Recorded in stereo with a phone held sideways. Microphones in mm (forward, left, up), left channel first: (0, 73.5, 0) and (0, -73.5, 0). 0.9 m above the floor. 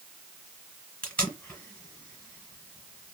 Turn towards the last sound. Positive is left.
turn(degrees=10)  # may be behind; listen again after turning